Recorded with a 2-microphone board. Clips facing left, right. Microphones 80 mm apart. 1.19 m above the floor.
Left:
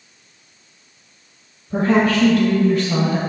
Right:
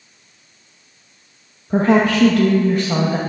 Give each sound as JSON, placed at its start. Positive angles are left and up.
{"t": 1.7, "sound": "a woman speaking", "side_deg": -75, "distance_m": 1.2}